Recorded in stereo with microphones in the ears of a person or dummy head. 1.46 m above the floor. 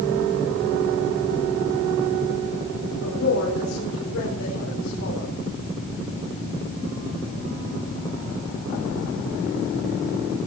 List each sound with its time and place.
3.0 s a woman speaking: 90° left, 4.5 m